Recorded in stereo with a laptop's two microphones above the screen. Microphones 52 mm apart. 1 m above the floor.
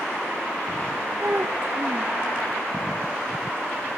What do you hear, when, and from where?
1.2 s a child speaking: 45° right (ahead or behind), 0.7 m